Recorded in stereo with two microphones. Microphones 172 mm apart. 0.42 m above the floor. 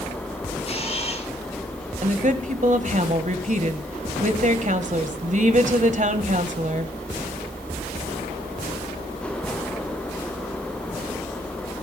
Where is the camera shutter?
35° left (ahead or behind), 4.5 m.